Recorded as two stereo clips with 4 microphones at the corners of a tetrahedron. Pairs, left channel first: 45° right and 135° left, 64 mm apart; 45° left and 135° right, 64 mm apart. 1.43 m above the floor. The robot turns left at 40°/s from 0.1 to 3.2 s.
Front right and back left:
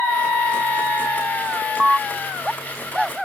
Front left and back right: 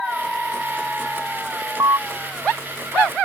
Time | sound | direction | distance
1.6 | an alarm | 130° right | ?